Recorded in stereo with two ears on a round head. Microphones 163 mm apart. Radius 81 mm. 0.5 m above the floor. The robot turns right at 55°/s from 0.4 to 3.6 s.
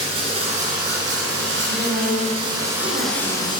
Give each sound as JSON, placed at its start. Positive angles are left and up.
{"t": 0.0, "sound": "running water", "azimuth_deg": -145, "distance_m": 1.1}
{"t": 1.7, "sound": "a woman speaking", "azimuth_deg": -165, "distance_m": 1.5}